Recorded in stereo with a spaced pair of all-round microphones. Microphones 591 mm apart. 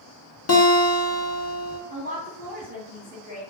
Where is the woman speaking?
15° right (ahead or behind), 1.0 m.